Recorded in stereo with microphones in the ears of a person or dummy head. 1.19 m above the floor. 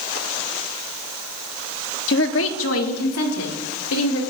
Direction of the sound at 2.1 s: 55° left (ahead or behind).